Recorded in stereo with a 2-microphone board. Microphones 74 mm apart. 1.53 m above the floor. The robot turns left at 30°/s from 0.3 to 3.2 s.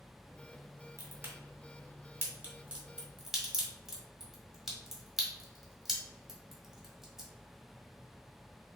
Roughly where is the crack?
Right.